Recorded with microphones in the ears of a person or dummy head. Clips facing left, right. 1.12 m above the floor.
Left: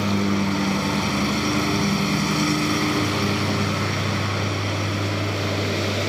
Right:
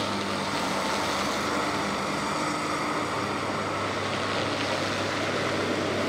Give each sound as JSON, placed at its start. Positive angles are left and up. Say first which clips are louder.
{"t": 0.0, "sound": "a lawn mower", "louder": "left 8 dB", "side_deg": 45}